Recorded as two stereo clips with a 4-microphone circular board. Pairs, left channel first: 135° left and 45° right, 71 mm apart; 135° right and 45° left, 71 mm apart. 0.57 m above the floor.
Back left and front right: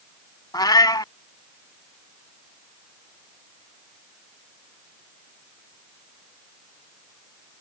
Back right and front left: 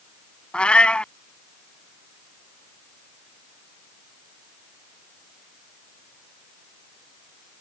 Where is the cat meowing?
150° left.